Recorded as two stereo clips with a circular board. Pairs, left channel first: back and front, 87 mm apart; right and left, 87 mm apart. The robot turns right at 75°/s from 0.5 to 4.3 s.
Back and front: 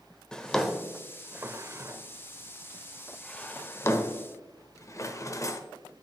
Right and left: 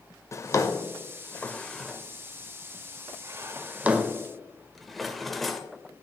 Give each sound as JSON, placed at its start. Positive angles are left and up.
{"t": 0.3, "sound": "a drawer", "azimuth_deg": -105, "distance_m": 0.7}